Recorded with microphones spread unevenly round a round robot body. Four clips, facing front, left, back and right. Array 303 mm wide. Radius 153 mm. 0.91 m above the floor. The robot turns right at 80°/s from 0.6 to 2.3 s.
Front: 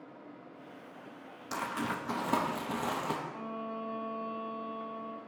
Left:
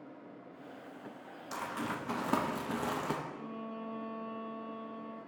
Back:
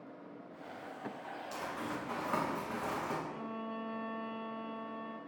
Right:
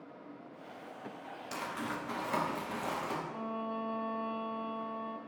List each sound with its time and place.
1.5 s crumpling: 15° right, 0.9 m; by 3.2 s 50° left, 0.9 m
3.3 s a violin: 85° right, 0.7 m